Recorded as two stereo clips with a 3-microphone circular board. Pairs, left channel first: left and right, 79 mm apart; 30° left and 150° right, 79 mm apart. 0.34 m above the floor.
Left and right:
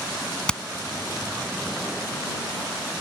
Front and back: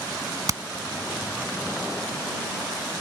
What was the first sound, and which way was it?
Hammering, 170° left.